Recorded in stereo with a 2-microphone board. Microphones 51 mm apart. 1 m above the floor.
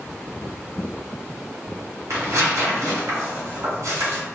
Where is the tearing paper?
85° right, 1.8 m.